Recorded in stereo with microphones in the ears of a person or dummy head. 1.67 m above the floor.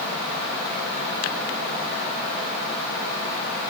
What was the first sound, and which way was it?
Only background noise.